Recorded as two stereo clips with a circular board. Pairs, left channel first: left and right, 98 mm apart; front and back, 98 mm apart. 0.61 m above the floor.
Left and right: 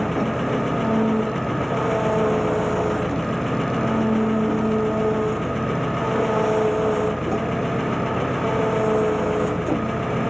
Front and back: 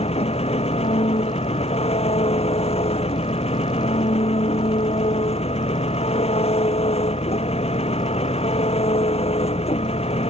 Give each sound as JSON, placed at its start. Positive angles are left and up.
{"t": 0.0, "sound": "an engine running", "azimuth_deg": 0}